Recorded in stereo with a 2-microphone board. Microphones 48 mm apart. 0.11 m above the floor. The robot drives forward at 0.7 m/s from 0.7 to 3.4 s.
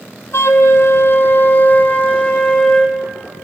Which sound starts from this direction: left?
A flute, at 0.3 s.